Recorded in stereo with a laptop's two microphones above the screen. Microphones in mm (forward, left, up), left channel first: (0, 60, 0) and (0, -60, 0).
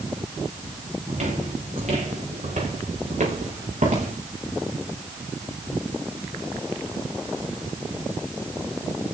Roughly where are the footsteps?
Right.